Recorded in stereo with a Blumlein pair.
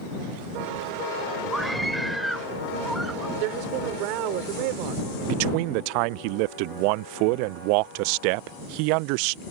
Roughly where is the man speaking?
Ahead right.